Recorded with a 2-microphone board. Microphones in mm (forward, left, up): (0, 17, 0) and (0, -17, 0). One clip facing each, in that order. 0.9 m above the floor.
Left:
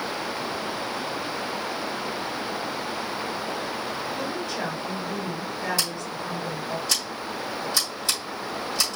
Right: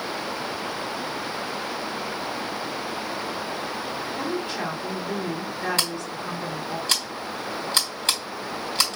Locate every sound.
4.2 s a woman speaking: 45° right (ahead or behind), 3 m
5.8 s scissors: 55° right (ahead or behind), 3 m